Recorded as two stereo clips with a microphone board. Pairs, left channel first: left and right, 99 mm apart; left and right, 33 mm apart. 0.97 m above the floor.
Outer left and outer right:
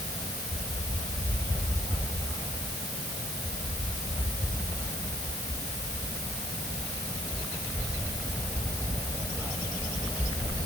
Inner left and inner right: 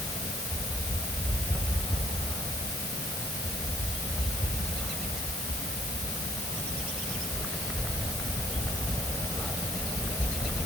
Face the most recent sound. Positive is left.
No sound to turn to.